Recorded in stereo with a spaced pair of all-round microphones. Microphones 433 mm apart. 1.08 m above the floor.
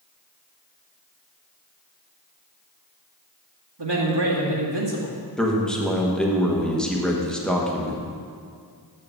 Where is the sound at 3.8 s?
80° right, 2 m.